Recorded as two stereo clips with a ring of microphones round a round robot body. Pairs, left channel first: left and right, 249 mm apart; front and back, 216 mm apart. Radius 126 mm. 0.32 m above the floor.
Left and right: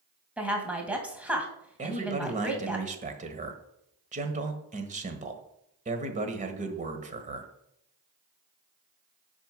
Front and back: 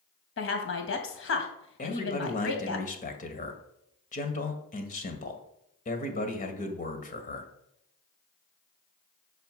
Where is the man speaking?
40° right, 1.5 m.